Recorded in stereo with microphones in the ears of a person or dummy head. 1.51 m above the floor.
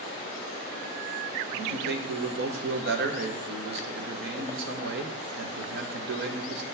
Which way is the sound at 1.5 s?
65° right (ahead or behind).